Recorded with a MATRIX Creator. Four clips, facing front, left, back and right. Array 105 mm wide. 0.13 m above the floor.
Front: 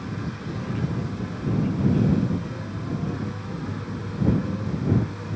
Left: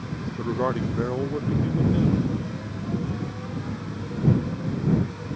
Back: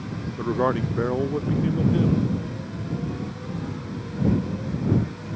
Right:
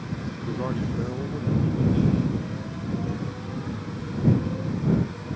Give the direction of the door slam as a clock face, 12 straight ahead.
No door slam in this recording.